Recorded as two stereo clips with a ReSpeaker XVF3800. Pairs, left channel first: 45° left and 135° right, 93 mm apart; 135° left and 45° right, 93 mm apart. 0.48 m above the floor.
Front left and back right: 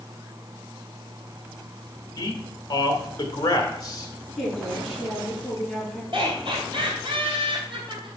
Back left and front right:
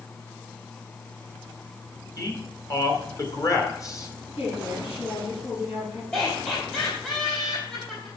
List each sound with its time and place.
2.2 s a man speaking: 90° left, 2 m
4.4 s a woman speaking: 130° left, 6 m
6.1 s laughter: 150° right, 2.5 m